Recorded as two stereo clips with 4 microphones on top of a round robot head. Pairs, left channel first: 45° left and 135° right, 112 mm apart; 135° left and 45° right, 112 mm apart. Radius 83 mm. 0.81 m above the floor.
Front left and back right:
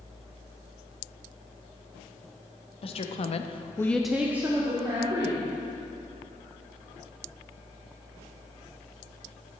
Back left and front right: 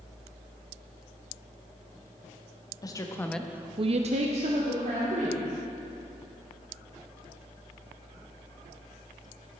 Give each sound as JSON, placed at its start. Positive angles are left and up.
{"t": 2.8, "sound": "a woman speaking", "azimuth_deg": 80, "distance_m": 1.3}